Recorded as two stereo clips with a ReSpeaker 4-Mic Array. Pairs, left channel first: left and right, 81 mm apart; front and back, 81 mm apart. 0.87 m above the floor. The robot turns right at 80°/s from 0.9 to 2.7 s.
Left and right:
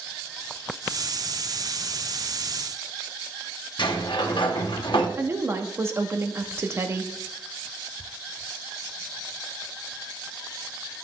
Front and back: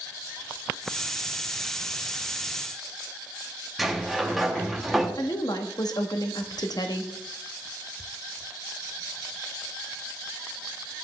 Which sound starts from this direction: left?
A sliding door, at 3.8 s.